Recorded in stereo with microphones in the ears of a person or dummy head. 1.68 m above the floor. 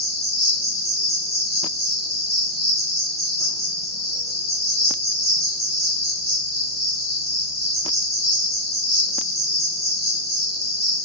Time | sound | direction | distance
0.0 | an insect | centre (ahead or behind) | 1.8 m